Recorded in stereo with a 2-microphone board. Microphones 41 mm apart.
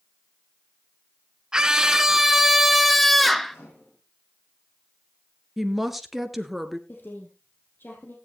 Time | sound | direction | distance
1.5 | a scream | 15° right (ahead or behind) | 1.1 m
3.5 | a microwave | 80° left | 8 m
5.6 | a woman speaking | 5° right (ahead or behind) | 1.5 m
6.9 | a woman speaking | 55° left (ahead or behind) | 3.5 m